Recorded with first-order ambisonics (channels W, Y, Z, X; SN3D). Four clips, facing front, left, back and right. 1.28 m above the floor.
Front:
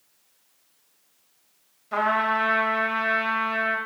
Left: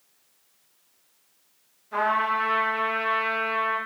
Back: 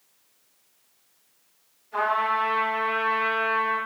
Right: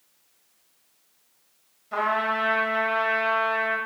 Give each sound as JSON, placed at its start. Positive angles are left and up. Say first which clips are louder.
{"t": 1.9, "sound": "a trumpet", "louder": "left 1 dB, front 1 dB", "azimuth_deg": -20, "distance_m": 1.2}